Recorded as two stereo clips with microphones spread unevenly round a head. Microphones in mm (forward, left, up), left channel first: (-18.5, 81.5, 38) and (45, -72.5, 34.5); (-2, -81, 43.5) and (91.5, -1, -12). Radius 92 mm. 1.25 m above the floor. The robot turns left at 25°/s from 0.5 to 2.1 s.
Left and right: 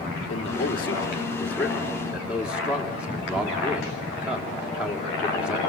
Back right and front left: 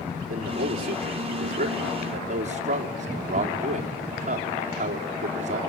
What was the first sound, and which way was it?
A man speaking, 55° left.